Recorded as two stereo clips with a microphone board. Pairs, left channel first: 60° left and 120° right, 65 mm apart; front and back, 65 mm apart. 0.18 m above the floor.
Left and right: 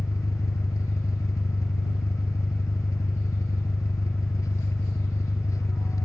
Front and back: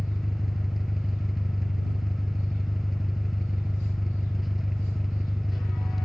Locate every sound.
0.0 s an engine running: 90° left